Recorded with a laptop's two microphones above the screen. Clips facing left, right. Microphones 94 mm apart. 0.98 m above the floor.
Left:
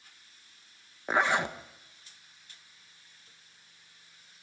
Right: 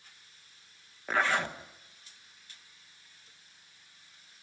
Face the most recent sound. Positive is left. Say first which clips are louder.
# left 2 dB
turn(degrees=20)  # may be behind; listen again after turning